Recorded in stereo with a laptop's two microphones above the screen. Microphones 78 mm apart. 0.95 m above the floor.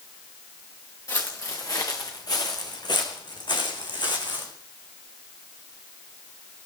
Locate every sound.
1.1 s footsteps: 40° left (ahead or behind), 5.5 m; by 4.5 s 70° left (ahead or behind), 4 m